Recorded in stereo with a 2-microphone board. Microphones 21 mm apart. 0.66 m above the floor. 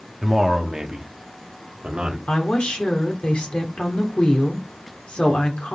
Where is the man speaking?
20° right (ahead or behind), 1.4 m; by 2.2 s 55° right (ahead or behind), 1.7 m.